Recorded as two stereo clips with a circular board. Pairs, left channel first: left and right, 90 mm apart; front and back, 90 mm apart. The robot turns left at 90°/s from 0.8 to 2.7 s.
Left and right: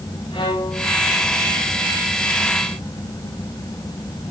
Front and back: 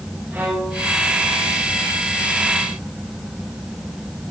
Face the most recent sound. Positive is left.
turn(degrees=-65)